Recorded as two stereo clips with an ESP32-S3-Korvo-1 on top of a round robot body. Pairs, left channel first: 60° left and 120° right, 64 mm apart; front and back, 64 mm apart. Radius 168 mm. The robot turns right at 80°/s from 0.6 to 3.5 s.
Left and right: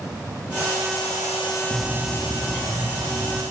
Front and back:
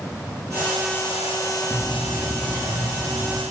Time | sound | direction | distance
1.7 | a bird | 55° left | 0.6 m